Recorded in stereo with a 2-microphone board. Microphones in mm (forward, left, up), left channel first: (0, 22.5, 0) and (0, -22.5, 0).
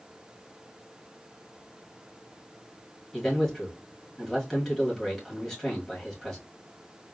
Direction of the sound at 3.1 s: 15° left (ahead or behind).